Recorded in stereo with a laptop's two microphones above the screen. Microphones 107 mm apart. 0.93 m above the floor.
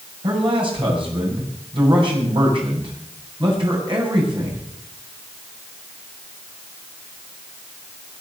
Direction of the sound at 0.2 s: 55° right (ahead or behind).